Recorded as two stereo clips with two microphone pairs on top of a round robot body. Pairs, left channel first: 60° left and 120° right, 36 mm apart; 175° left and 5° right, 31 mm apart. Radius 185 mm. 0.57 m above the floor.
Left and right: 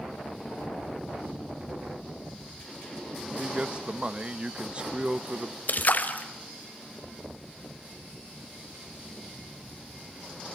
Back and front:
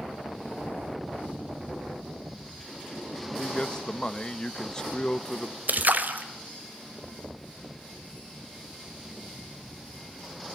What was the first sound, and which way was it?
A man speaking, 140° right.